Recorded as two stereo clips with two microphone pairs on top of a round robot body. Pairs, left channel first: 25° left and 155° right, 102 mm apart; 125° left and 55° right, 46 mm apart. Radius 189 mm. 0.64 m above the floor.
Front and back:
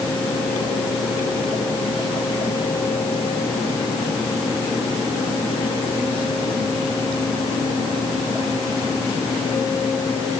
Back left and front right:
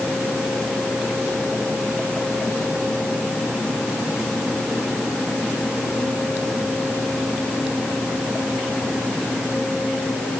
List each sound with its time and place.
Only background noise.